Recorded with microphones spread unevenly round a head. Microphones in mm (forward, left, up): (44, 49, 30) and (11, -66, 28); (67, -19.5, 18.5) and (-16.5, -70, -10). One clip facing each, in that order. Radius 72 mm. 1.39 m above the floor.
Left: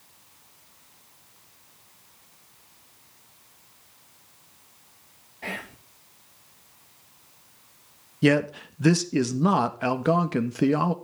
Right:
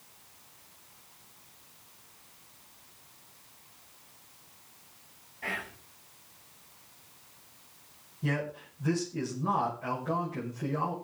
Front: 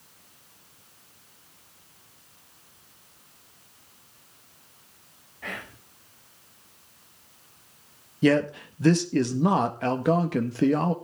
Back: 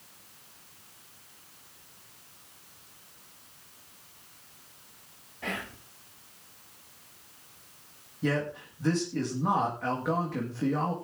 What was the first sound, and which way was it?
Whispering, 140° left.